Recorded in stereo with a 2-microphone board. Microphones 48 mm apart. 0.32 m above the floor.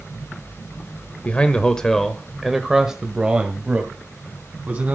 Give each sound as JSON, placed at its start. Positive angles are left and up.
{"t": 1.2, "sound": "a man speaking", "side_deg": 25, "distance_m": 1.2}